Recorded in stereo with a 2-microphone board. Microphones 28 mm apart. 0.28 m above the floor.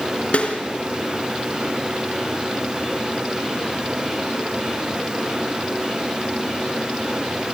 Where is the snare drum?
55° left (ahead or behind), 3 m.